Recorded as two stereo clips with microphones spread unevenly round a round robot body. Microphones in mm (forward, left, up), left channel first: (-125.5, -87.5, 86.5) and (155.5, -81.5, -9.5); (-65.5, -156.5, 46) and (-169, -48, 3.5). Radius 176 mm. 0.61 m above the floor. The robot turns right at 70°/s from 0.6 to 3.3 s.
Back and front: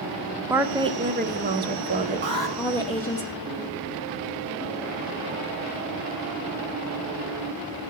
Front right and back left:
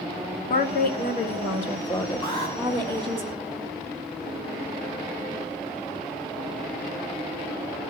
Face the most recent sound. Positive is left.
turn(degrees=135)